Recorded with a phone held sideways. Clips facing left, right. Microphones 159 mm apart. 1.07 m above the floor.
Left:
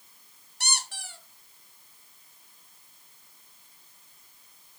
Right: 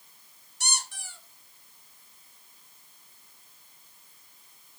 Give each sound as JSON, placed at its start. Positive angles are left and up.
{"t": 0.6, "sound": "a squeak", "side_deg": 80, "distance_m": 1.4}